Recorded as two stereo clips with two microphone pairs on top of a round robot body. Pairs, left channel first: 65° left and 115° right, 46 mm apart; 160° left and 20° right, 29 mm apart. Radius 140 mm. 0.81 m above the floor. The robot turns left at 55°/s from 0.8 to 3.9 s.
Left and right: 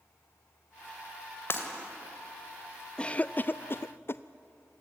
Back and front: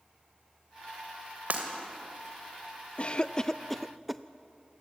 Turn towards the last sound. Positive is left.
turn(degrees=75)